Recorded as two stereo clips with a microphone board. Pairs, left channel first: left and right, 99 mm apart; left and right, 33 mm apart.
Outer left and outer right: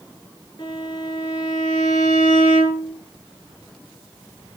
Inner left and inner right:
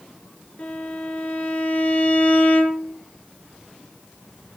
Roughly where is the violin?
Left.